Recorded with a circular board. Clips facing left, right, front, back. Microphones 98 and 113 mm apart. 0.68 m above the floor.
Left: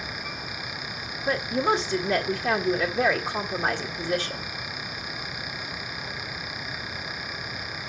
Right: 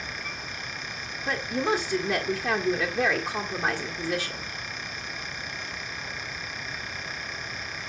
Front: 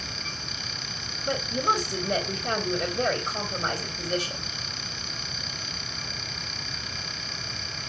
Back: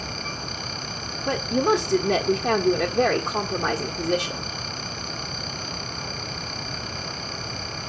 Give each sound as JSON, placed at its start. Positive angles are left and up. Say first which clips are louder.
{"t": 1.3, "sound": "a woman speaking", "louder": "left 3 dB, back 5 dB", "azimuth_deg": -175, "distance_m": 1.6}